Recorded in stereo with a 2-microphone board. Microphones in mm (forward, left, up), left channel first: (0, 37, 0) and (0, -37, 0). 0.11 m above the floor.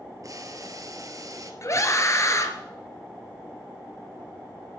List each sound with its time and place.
0.2 s boiling: 50° right (ahead or behind), 1.5 m
1.6 s a scream: 45° left (ahead or behind), 2.5 m